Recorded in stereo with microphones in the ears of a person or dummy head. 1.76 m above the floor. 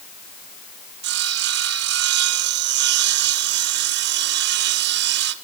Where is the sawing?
60° right (ahead or behind), 1.6 m.